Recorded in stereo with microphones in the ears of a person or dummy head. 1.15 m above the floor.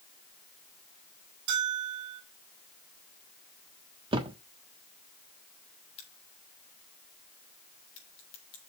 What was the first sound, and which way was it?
A bell, 55° right (ahead or behind).